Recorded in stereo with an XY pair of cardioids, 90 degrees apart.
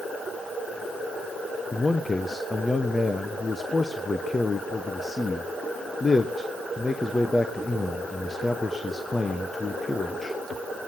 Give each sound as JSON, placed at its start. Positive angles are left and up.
{"t": 1.7, "sound": "a man speaking", "azimuth_deg": 25, "distance_m": 1.1}